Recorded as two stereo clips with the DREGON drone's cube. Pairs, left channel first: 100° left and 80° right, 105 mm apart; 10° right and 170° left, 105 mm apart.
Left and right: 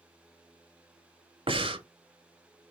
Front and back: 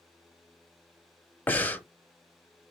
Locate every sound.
1.5 s breathing: 80° right, 0.8 m